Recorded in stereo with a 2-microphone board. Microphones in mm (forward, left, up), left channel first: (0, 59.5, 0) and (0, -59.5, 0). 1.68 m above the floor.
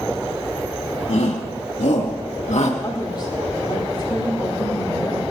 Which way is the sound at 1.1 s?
80° left.